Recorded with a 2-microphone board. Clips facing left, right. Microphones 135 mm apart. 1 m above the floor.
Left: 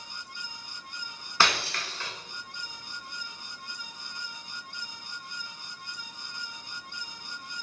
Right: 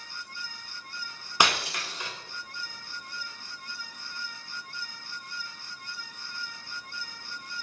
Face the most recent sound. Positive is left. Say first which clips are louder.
# right 1 dB
turn(degrees=-15)  # may be behind; listen again after turning